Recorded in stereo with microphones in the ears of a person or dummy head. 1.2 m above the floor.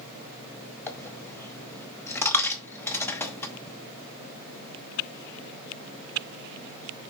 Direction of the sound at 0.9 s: 10° left (ahead or behind).